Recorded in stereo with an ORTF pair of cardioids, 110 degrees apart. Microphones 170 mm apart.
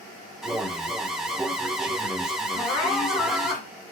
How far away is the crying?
About 2.5 m.